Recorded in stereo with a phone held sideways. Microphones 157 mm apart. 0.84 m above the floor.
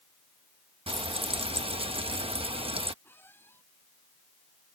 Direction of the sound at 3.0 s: 15° left (ahead or behind).